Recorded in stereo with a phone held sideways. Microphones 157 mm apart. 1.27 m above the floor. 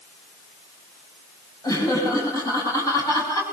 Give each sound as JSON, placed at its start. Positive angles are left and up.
{"t": 1.6, "sound": "laughter", "side_deg": 25, "distance_m": 8.0}